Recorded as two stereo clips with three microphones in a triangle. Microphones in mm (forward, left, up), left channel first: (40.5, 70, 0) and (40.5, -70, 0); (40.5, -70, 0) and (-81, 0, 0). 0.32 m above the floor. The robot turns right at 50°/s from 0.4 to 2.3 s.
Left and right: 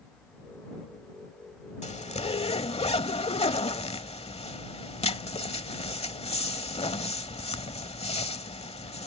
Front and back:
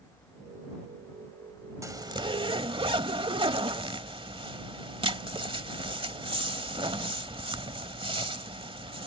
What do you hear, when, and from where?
1.8 s a zipper: 90° left; by 9.1 s 115° left